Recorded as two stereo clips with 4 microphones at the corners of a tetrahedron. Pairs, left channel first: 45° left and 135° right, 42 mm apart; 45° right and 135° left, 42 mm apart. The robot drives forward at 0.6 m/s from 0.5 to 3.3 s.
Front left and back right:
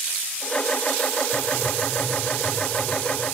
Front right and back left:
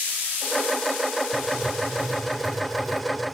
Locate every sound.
1.3 s writing: 65° left, 0.8 m; by 3.0 s 145° left, 1.1 m